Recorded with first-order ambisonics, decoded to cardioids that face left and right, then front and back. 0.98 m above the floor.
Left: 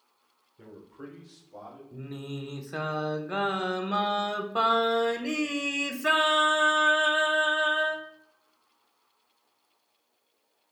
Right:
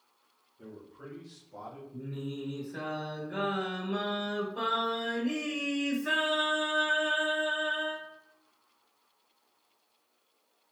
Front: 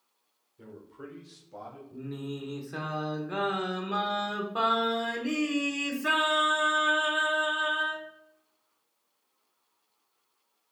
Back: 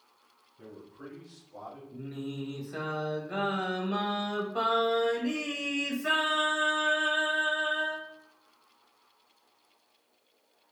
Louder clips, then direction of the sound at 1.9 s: Left 2 dB, front 2 dB; 75° left.